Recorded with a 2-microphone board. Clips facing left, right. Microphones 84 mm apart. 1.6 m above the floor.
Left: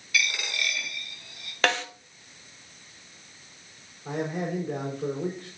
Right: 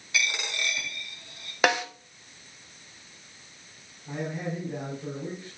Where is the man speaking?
70° left (ahead or behind), 5 m.